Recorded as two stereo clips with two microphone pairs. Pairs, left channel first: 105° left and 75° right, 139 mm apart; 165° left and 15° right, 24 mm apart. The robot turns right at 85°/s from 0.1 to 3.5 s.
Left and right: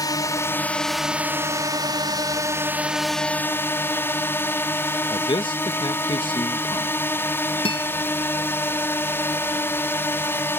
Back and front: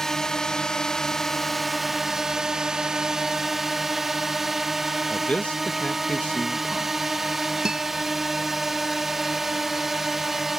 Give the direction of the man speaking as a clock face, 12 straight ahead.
7 o'clock.